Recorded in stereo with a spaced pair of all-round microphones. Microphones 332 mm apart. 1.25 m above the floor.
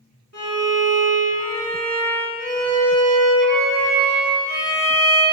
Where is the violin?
55° right (ahead or behind), 2.5 m.